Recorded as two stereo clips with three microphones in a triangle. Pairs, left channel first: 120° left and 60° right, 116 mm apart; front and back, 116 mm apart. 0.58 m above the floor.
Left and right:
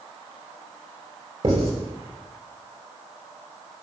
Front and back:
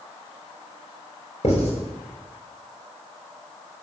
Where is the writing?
30° right, 4.5 m.